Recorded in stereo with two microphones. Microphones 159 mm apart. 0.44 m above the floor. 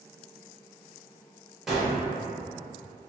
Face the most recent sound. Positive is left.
turn(degrees=0)  # may be behind; listen again after turning